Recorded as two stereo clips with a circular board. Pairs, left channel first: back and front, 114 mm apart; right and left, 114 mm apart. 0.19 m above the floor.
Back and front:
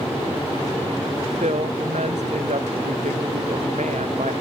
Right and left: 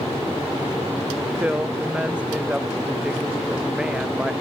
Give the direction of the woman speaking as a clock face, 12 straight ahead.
12 o'clock.